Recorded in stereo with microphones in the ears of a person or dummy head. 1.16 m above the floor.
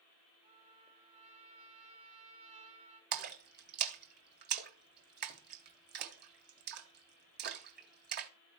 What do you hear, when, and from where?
0.4 s a trumpet: 35° right (ahead or behind), 3 m
3.1 s a splash: 55° right (ahead or behind), 1.6 m